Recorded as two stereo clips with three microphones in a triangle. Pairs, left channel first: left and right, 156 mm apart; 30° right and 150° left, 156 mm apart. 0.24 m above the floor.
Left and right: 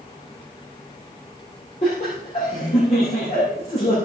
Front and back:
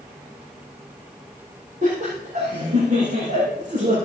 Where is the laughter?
135° left, 8 m.